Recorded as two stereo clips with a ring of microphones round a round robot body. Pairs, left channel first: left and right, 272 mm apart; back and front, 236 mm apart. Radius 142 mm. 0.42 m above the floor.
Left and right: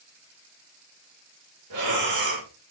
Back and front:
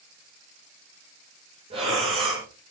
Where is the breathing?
70° right, 6 m.